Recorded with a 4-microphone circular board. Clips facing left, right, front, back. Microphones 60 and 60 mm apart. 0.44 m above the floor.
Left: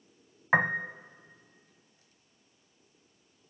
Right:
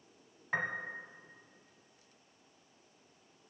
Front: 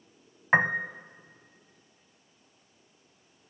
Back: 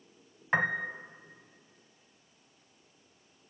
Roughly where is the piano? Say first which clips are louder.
Left 10 dB, front 5 dB; ahead left.